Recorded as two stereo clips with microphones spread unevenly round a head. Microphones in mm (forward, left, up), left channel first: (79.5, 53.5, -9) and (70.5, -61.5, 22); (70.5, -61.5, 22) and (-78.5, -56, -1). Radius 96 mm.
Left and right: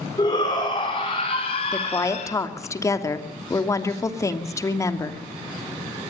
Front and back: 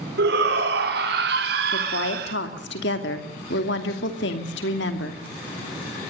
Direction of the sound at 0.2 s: 155° left.